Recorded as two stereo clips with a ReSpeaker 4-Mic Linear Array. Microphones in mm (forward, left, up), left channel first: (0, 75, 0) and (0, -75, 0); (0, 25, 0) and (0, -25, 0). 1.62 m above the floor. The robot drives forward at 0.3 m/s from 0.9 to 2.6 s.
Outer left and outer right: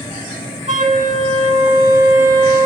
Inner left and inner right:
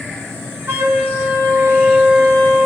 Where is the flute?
55° right (ahead or behind), 1.7 m; by 2.7 s 50° right (ahead or behind), 1.9 m.